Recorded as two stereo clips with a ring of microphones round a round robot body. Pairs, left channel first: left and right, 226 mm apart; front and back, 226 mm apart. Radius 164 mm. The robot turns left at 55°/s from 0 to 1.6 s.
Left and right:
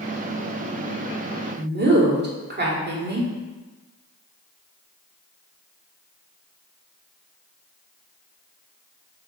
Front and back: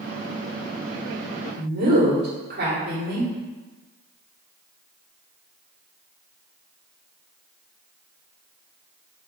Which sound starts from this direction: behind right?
A woman speaking, at 1.6 s.